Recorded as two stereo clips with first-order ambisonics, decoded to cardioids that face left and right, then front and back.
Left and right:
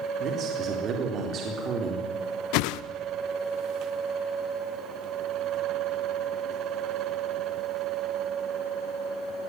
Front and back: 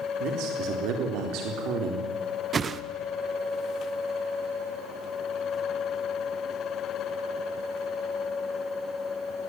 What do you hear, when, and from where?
0.2 s a man speaking: 145° right, 3.5 m
2.5 s a whoosh: 110° left, 0.9 m